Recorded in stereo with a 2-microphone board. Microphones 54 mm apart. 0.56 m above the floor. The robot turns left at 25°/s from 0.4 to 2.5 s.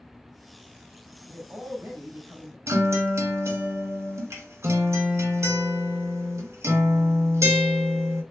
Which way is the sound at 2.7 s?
60° right (ahead or behind).